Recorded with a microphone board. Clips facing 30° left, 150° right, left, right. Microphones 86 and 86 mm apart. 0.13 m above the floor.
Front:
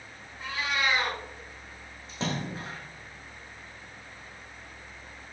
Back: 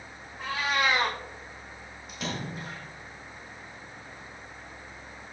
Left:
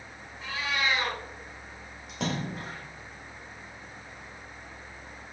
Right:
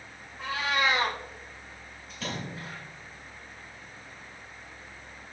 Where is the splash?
90° left, 3.5 m.